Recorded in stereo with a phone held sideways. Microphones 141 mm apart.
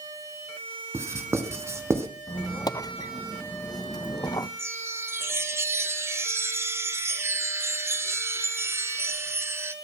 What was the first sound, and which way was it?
Writing, 20° right (ahead or behind).